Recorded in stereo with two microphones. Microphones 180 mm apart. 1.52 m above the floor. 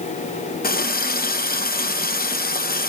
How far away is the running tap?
About 0.9 m.